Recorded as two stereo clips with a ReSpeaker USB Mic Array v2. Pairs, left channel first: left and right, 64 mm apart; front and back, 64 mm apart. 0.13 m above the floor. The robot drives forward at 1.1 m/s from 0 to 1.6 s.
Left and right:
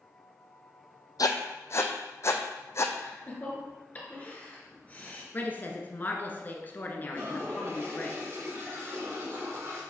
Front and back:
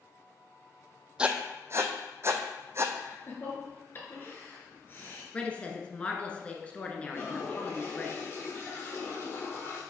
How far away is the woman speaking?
About 1.2 m.